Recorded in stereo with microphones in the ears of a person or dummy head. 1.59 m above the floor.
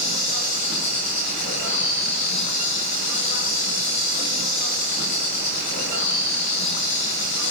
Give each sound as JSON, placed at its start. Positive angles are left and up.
{"t": 0.0, "sound": "an insect", "side_deg": 40, "distance_m": 5.5}